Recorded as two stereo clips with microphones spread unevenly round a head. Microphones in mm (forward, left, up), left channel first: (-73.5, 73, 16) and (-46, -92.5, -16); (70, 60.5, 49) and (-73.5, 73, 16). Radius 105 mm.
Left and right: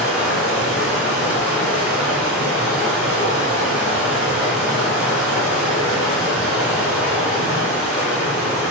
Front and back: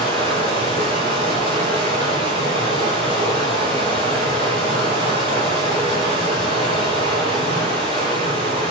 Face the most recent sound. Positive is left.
turn(degrees=175)